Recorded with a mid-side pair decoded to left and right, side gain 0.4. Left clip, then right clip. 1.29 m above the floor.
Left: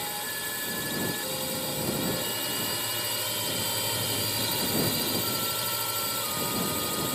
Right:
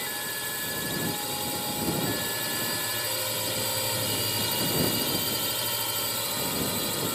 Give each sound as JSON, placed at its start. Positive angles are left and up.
{"t": 0.0, "sound": "a drone", "azimuth_deg": -5}